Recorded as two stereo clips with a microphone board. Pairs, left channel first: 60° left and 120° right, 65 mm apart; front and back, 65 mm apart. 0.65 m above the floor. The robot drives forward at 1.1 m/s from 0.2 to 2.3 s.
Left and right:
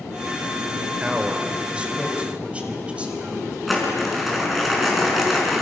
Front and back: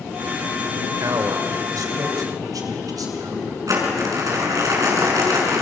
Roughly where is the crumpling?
Behind left.